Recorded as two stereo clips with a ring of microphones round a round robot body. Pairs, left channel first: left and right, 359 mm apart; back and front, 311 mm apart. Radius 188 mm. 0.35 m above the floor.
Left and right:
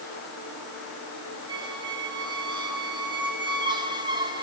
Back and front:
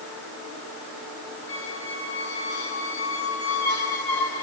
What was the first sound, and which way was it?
A squeak, 170° right.